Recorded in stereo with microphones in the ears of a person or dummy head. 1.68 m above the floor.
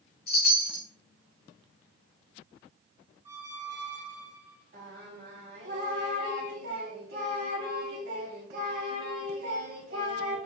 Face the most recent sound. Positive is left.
turn(degrees=-55)  # may be behind; listen again after turning